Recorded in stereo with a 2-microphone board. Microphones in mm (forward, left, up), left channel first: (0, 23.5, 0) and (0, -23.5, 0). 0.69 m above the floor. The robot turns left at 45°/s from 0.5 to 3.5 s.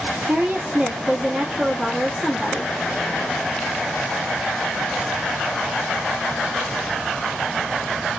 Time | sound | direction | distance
0.3 | a woman speaking | 105° right | 1.0 m